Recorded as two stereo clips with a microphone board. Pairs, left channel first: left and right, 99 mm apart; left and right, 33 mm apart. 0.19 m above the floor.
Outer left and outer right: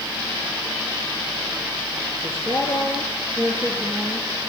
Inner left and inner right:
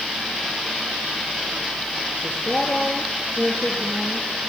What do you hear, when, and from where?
2.2 s a woman speaking: 15° left (ahead or behind), 4 m